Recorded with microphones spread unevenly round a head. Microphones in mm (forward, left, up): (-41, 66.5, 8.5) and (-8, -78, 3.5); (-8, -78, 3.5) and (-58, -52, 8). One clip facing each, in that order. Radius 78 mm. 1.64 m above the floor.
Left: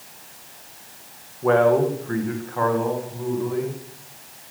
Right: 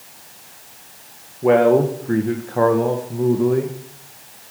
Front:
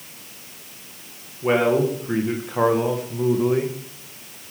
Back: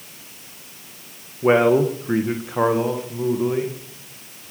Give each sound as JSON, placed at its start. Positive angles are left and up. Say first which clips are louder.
{"t": 1.4, "sound": "a man speaking", "louder": "right 3 dB, back 3 dB", "azimuth_deg": -145, "distance_m": 2.0}